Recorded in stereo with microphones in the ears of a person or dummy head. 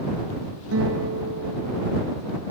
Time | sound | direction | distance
0.7 | a guitar | 75° right (ahead or behind) | ?